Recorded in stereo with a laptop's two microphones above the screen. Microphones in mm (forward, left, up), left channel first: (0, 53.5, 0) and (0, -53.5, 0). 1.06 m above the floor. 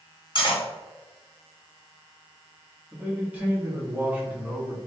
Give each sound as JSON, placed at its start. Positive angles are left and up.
{"t": 0.3, "sound": "cutlery clinking", "side_deg": 50, "distance_m": 1.6}
{"t": 2.9, "sound": "a man speaking", "side_deg": -15, "distance_m": 1.9}